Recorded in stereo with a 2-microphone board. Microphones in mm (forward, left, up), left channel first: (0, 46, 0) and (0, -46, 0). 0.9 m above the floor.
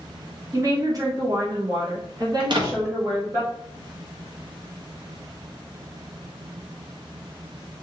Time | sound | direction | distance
0.5 | a woman speaking | 35° right (ahead or behind) | 1.1 m
2.4 | a door slam | 50° right (ahead or behind) | 0.7 m